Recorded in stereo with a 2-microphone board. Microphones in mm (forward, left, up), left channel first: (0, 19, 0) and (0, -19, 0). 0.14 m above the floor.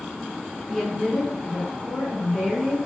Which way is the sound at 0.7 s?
5° left (ahead or behind).